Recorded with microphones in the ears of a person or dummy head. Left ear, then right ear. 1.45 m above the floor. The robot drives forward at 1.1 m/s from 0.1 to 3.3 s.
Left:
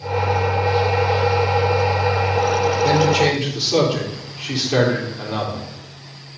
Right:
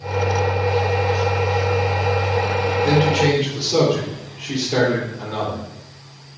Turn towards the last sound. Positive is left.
turn(degrees=40)  # may be behind; listen again after turning